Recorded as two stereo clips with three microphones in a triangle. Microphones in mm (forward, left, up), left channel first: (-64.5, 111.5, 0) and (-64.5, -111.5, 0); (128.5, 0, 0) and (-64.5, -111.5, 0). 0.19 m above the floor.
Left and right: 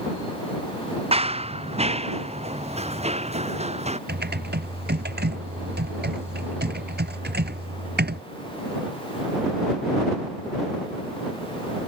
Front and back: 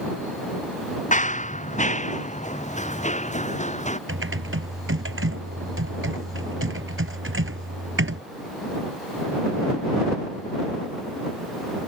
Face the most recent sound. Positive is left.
turn(degrees=-130)